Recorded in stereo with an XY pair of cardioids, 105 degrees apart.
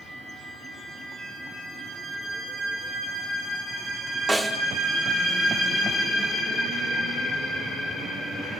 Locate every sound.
4.3 s a snare drum: 10° right, 2.5 m